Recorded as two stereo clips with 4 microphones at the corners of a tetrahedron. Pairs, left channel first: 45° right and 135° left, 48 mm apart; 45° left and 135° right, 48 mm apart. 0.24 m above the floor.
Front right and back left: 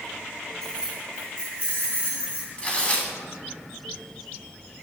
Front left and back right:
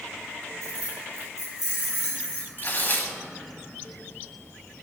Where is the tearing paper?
20° left, 1.5 m.